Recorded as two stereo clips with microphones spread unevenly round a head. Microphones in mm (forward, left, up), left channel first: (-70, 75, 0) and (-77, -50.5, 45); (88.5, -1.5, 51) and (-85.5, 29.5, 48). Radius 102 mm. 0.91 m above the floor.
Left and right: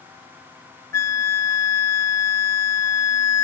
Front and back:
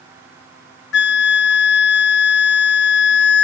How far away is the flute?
About 0.5 m.